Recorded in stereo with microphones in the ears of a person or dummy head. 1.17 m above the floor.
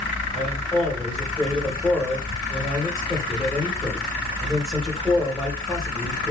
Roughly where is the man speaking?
Centre.